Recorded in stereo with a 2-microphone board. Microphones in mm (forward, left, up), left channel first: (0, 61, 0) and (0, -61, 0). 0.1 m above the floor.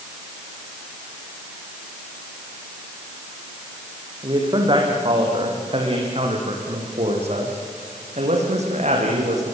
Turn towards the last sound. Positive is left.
turn(degrees=-70)  # may be behind; listen again after turning